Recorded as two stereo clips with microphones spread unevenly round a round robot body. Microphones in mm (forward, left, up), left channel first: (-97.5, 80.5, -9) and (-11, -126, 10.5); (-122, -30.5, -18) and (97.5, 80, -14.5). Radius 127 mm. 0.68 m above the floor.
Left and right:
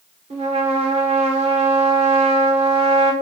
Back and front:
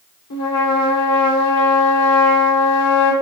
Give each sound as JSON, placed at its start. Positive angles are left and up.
{"t": 0.3, "sound": "a trumpet", "azimuth_deg": -130, "distance_m": 2.5}